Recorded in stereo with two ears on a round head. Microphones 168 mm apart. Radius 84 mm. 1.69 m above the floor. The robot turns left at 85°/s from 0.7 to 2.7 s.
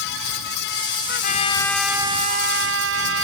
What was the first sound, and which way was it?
A trumpet, 60° left.